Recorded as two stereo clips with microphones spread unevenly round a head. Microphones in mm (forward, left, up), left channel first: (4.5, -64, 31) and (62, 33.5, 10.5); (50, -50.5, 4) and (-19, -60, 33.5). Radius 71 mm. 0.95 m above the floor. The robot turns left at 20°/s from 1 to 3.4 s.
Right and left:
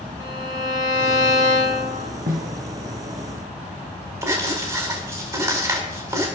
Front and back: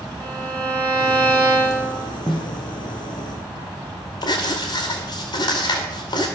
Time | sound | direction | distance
0.2 | a violin | 130° left | 6.5 m
2.3 | a snare drum | 60° left | 3.5 m
4.2 | writing | straight ahead | 5 m